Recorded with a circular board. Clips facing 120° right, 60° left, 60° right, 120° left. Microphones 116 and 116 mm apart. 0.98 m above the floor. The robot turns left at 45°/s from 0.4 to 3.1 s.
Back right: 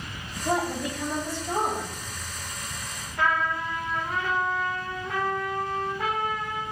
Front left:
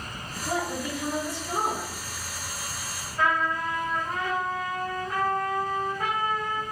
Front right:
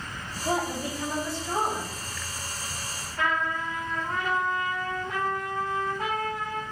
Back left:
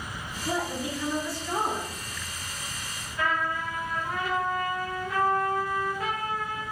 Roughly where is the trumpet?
Right.